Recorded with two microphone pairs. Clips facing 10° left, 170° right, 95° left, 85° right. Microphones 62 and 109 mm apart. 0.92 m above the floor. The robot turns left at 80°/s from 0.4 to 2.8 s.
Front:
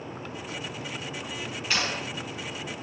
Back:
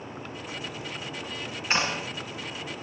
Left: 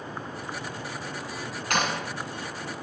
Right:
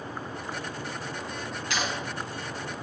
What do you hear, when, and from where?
1.7 s a clap: 130° left, 8 m; by 2.1 s 100° left, 8 m